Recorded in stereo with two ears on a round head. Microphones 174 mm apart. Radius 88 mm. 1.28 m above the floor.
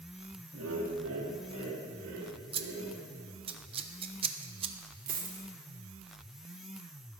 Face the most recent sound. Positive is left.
turn(degrees=-45)  # may be behind; listen again after turning